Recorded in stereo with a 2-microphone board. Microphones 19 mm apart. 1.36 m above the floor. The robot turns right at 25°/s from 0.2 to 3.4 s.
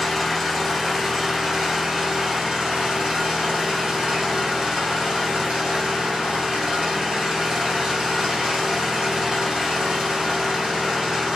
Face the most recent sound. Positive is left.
turn(degrees=-95)